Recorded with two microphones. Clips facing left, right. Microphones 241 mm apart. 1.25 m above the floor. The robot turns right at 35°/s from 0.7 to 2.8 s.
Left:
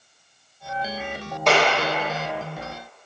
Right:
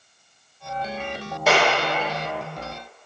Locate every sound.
1.5 s a clap: 5° right (ahead or behind), 1.9 m; by 1.7 s centre (ahead or behind), 1.9 m